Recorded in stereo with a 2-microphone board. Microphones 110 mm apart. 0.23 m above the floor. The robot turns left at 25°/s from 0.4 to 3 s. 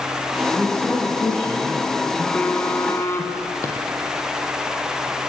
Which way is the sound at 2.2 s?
10° left (ahead or behind).